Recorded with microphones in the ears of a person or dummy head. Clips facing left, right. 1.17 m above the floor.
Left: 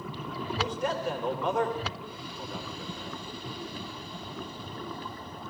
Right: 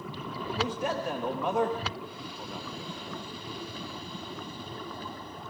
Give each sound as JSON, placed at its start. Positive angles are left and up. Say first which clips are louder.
{"t": 0.6, "sound": "a man speaking", "louder": "even", "side_deg": -5, "distance_m": 2.0}